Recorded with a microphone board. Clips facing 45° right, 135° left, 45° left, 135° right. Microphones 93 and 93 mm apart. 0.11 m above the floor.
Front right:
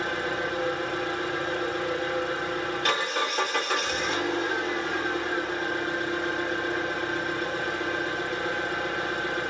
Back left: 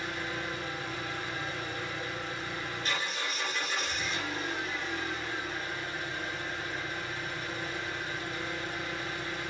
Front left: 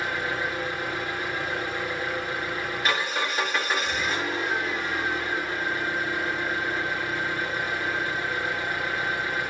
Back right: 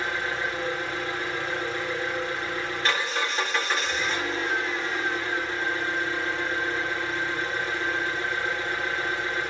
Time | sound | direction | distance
0.0 | an engine running | 35° right | 9.5 m